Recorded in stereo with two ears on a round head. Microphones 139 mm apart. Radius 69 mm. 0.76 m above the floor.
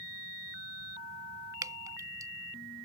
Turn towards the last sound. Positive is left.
turn(degrees=-20)  # may be behind; listen again after turning